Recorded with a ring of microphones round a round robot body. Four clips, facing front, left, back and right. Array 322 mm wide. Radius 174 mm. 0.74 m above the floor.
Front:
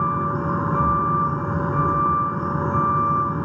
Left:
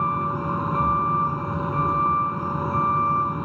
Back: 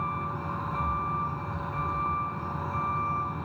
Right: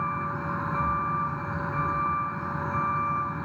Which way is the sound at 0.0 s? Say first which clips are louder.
Left 6 dB, front 10 dB; 20° left.